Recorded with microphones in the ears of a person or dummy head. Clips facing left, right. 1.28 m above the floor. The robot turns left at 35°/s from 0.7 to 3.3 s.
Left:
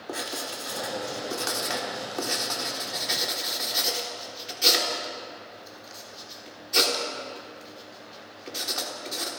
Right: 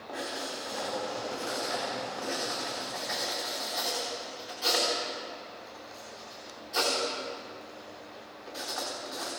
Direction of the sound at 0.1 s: 50° left (ahead or behind).